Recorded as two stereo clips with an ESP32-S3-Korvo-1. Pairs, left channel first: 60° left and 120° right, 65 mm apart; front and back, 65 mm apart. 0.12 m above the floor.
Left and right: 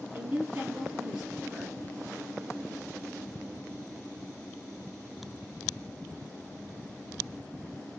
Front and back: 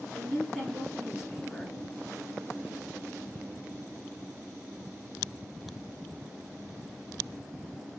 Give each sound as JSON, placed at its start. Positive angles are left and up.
{"t": 0.1, "sound": "a woman speaking", "azimuth_deg": -75, "distance_m": 1.5}